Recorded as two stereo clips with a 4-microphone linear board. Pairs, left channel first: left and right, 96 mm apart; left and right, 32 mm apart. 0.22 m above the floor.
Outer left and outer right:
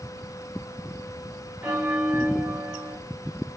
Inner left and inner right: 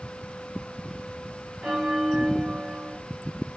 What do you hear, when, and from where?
1.6 s a bell: 15° right (ahead or behind), 1.6 m